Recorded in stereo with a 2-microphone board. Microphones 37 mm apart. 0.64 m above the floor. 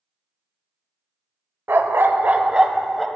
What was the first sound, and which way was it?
A dog barking, 70° right (ahead or behind).